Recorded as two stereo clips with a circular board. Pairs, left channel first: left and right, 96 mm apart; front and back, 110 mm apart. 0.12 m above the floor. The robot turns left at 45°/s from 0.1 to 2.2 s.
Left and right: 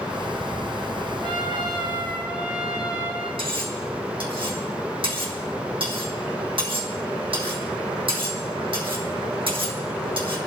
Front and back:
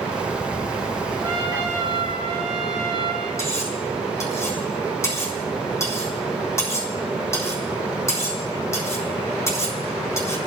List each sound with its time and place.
1.2 s a trumpet: 120° right, 6 m; by 3.3 s 165° right, 6 m
3.4 s cutlery clinking: 65° right, 3.5 m